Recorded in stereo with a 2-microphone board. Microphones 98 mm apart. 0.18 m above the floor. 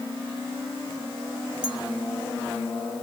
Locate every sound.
1.6 s a clink: 10° right (ahead or behind), 1.6 m